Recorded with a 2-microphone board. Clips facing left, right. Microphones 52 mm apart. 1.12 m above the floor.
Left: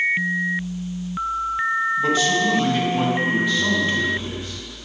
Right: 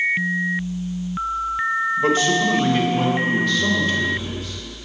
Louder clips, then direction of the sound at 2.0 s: Right 3 dB; 40° right (ahead or behind).